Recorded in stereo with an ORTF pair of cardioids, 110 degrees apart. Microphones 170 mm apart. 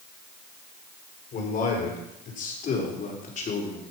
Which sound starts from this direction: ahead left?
A man speaking, at 1.3 s.